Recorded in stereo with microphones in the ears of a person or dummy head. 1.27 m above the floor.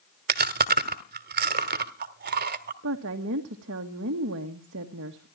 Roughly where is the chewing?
Right.